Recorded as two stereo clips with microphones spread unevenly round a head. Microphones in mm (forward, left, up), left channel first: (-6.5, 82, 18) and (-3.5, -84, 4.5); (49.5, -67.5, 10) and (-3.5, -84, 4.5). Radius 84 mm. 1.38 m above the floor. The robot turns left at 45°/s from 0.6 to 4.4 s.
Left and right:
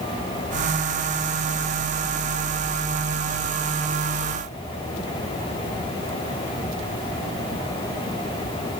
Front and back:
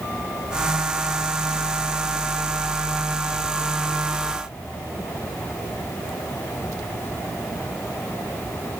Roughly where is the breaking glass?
No breaking glass in this recording.